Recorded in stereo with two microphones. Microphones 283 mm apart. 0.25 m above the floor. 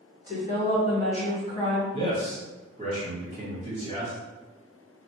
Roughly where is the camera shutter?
No camera shutter in this recording.